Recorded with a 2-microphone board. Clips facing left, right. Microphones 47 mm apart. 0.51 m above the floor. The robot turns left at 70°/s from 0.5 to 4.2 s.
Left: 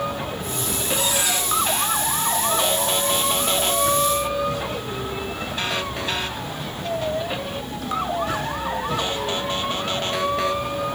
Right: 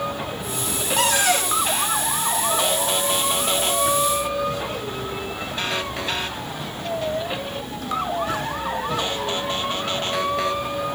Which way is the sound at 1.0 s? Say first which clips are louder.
Right 7 dB; 95° right.